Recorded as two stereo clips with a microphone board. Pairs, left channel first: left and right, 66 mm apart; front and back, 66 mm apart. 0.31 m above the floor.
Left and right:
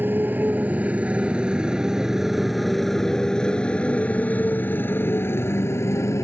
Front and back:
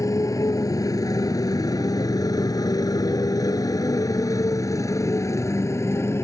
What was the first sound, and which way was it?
A motorcycle, 30° right.